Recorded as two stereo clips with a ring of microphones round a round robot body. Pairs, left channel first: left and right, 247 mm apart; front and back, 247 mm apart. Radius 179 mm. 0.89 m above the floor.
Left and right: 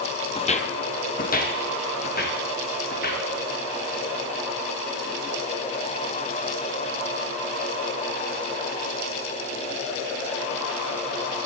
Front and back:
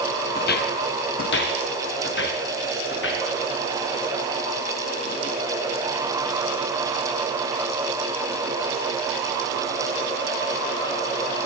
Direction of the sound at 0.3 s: 35° left.